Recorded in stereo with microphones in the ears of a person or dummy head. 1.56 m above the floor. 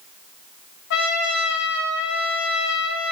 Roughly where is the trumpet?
Left.